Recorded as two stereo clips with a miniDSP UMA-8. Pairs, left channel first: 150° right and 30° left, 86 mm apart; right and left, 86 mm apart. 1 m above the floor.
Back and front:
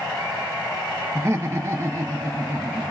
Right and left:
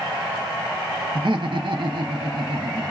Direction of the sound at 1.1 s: 85° left.